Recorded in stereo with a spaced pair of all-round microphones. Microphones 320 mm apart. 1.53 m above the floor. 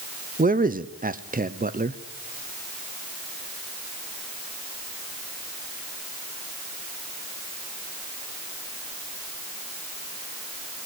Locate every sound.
0.4 s a man speaking: 25° right (ahead or behind), 0.7 m